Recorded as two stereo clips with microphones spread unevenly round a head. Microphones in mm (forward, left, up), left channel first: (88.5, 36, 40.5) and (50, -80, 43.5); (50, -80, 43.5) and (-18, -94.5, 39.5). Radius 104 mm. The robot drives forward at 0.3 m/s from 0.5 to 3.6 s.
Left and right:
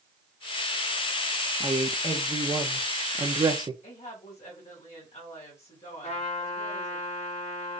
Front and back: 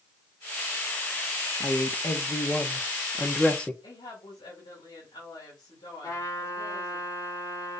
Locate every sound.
1.6 s a woman speaking: 40° right, 1.5 m; by 3.7 s 65° right, 1.2 m
3.8 s a woman speaking: 50° left, 4.5 m
6.0 s a trumpet: 50° left, 4 m